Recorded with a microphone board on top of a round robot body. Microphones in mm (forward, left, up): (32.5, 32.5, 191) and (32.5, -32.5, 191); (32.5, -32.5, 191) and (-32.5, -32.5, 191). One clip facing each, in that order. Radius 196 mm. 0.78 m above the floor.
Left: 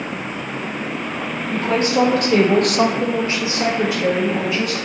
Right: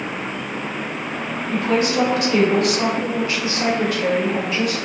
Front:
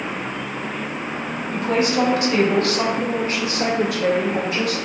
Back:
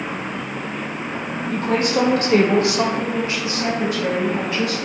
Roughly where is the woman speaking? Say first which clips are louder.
Left 1 dB, even; behind left.